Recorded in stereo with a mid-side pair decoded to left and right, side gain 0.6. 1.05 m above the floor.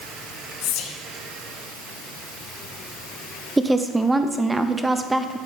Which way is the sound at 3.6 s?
10° right.